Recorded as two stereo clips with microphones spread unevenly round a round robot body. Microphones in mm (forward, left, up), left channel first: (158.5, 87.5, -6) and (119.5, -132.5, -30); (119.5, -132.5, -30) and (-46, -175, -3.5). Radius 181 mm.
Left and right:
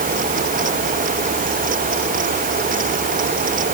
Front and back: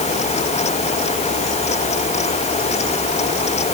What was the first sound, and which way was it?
Only background noise.